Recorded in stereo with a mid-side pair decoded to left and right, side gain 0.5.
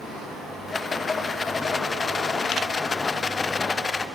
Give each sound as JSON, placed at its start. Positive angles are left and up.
{"t": 0.7, "sound": "a rattle", "azimuth_deg": 30, "distance_m": 0.7}